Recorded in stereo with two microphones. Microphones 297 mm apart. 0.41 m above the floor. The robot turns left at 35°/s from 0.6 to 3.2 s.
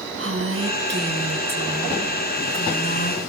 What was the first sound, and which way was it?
A woman speaking, 130° right.